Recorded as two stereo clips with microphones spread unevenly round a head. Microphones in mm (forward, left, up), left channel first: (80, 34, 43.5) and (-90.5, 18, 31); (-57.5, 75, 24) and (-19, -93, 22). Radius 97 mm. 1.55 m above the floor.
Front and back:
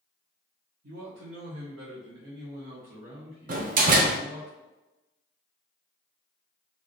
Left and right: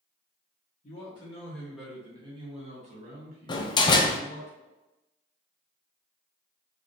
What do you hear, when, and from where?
0.8 s a man speaking: 155° left, 1.2 m; by 4.5 s 105° right, 2.5 m
3.5 s a door slam: 160° left, 0.5 m